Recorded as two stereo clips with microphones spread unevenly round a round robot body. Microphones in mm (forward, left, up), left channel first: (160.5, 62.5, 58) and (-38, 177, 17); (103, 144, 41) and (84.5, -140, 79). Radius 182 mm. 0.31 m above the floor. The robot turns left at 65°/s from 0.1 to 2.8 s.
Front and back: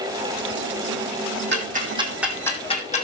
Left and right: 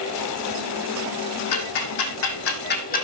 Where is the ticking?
110° left, 3 m; by 3.1 s 30° left, 3 m.